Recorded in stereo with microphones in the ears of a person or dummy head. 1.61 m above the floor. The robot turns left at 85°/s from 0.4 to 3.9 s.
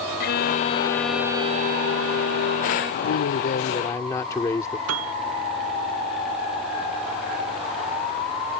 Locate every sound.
0.2 s a violin: 55° left; by 2.9 s 160° right
3.0 s a man speaking: 90° left; by 4.8 s 15° left
4.9 s a piano: 80° right